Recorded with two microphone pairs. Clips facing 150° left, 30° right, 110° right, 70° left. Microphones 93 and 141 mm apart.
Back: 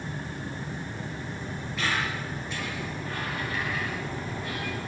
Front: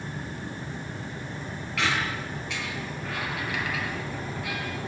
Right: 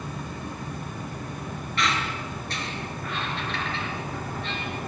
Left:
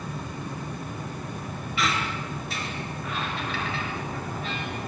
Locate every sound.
1.8 s a squeak: 15° right, 5.5 m